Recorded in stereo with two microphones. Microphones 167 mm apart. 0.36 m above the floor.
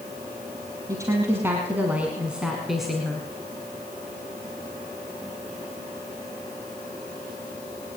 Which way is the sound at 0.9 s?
15° right (ahead or behind).